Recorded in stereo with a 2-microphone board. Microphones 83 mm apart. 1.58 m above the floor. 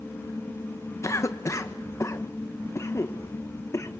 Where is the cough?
35° left (ahead or behind), 1.5 m.